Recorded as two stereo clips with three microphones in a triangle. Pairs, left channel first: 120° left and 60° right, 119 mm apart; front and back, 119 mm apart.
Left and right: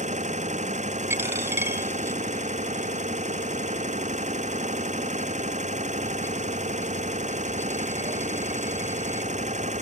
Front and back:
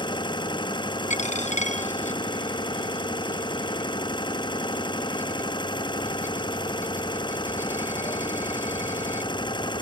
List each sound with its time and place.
0.0 s an engine running: 50° right
1.1 s a dropped coin: 10° left